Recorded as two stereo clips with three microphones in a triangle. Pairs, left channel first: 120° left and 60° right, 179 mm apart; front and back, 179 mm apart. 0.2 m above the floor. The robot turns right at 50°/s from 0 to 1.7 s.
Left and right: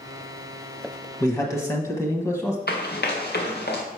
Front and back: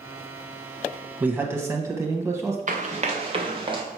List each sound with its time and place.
1.2 s a man speaking: 125° left, 1.0 m; by 2.6 s 150° left, 1.0 m
2.7 s running footsteps: 135° left, 1.4 m; by 3.8 s 120° left, 1.9 m